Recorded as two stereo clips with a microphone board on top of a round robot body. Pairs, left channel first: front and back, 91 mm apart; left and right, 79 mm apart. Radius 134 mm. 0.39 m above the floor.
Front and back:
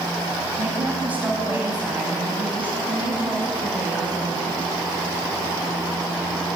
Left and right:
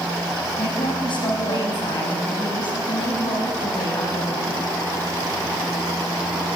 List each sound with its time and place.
0.6 s a woman speaking: 105° left, 4 m